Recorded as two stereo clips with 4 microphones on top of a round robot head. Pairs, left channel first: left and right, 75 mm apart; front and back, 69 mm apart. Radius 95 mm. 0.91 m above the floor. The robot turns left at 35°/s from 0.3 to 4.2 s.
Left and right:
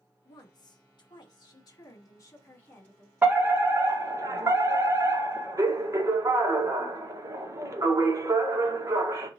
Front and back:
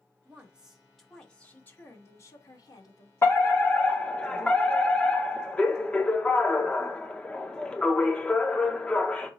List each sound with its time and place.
0.2 s a woman speaking: 110° left, 2.5 m; by 3.1 s 10° left, 2.5 m
3.2 s a fire alarm: 35° right, 1.9 m; by 9.3 s 70° right, 1.9 m